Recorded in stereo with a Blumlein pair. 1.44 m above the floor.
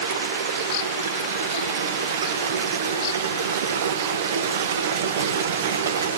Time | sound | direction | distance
0.0 | running water | 60° right | 1.0 m